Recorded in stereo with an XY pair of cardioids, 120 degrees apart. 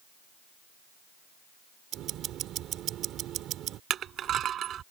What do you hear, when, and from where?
1.9 s ticking: 65° right
3.9 s crushing: 55° right